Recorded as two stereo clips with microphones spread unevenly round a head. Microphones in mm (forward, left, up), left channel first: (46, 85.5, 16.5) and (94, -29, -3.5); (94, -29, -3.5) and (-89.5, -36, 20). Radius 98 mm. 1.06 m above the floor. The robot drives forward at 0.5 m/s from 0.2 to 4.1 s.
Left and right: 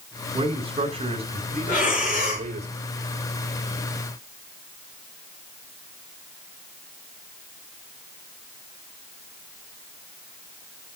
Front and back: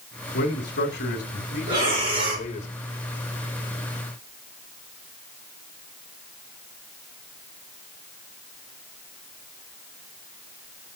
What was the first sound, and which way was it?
A man speaking, 25° right.